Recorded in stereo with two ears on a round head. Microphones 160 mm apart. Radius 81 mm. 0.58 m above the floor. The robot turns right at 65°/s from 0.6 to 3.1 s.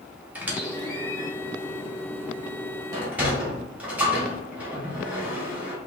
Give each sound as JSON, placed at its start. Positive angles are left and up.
{"t": 0.3, "sound": "a squeak", "side_deg": -10, "distance_m": 1.3}
{"t": 2.9, "sound": "a sliding door", "side_deg": -20, "distance_m": 1.3}